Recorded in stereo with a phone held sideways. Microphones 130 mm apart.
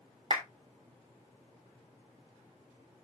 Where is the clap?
45° right (ahead or behind), 3 m.